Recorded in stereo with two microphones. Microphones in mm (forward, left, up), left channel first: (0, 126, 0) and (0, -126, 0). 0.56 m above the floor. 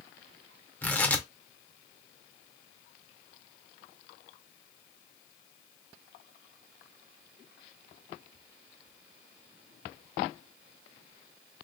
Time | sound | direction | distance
0.8 | tearing paper | 5° left (ahead or behind) | 0.8 m